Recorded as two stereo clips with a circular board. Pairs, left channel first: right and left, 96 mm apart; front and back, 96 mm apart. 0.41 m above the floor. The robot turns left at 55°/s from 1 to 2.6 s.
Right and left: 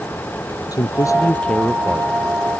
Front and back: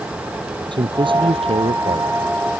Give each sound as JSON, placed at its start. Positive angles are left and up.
{"t": 0.7, "sound": "a man speaking", "azimuth_deg": -140}